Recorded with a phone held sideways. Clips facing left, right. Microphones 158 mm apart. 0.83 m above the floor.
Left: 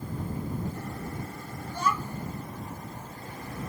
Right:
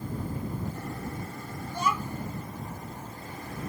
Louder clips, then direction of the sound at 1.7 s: Even; 15° right (ahead or behind).